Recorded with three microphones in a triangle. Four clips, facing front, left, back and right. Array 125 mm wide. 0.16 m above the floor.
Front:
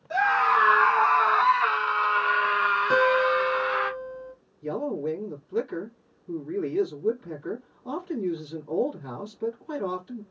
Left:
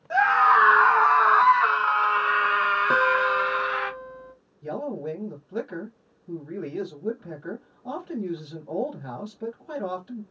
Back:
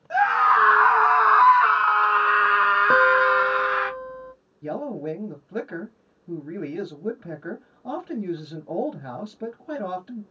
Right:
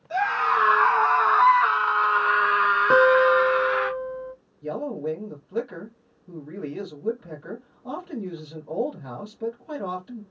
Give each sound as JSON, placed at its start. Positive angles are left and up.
{"t": 0.1, "sound": "a scream", "azimuth_deg": 125, "distance_m": 1.4}
{"t": 2.9, "sound": "a guitar", "azimuth_deg": -145, "distance_m": 0.8}
{"t": 4.6, "sound": "a man speaking", "azimuth_deg": -175, "distance_m": 3.0}